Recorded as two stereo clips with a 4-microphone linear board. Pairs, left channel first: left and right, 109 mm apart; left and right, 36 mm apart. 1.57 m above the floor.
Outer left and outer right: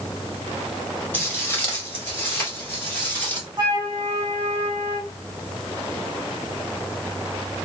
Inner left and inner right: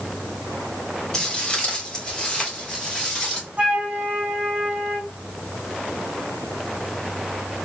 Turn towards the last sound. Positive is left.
turn(degrees=-40)  # may be behind; listen again after turning